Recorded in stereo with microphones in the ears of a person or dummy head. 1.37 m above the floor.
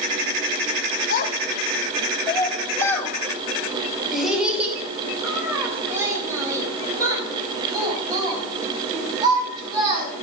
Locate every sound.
1.1 s a child speaking: 50° left (ahead or behind), 1.6 m; by 10.1 s 25° right (ahead or behind), 6.5 m